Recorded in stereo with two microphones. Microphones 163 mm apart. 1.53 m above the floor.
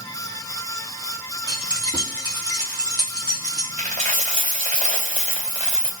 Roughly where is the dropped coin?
Right.